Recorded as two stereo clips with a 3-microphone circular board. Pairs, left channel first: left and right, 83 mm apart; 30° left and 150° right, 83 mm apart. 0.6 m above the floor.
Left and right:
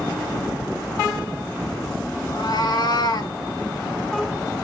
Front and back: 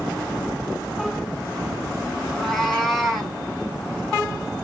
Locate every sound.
2.3 s a cat meowing: 115° left, 3.5 m; by 3.4 s 125° left, 3.5 m